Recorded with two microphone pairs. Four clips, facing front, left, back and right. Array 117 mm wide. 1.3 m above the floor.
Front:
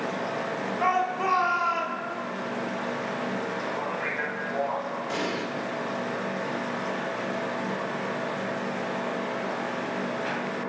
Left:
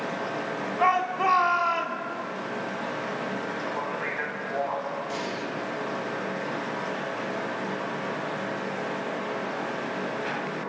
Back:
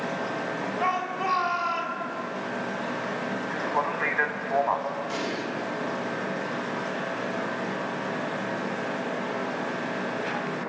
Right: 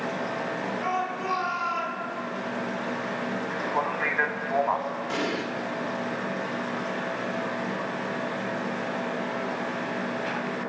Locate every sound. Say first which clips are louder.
0.8 s a shout: left 9 dB, front 3 dB; 90° left, 3.5 m
3.5 s a man speaking: right 3 dB, back 3 dB; 135° right, 2.5 m
5.1 s an explosion: right 3 dB, front 1 dB; 75° right, 2 m